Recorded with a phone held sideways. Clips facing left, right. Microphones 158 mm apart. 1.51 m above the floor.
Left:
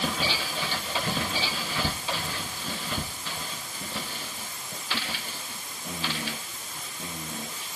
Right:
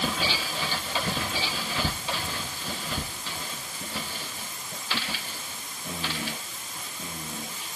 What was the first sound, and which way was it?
Only background noise.